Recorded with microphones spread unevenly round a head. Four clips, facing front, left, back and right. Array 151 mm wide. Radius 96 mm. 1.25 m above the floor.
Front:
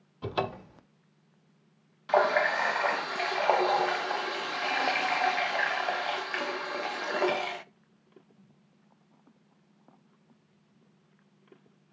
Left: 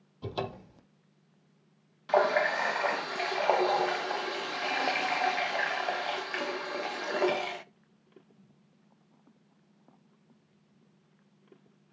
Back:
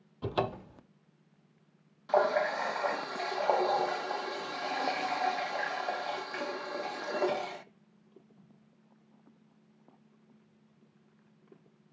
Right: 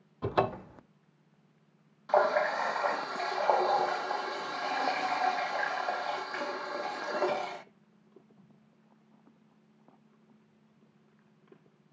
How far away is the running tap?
About 0.5 m.